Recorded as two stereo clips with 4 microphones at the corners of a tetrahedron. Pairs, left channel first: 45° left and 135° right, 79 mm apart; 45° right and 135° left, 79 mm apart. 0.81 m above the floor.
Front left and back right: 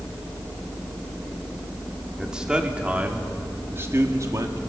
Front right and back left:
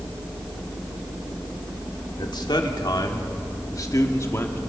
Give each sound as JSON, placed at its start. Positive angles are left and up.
{"t": 2.2, "sound": "a man speaking", "azimuth_deg": -55, "distance_m": 2.5}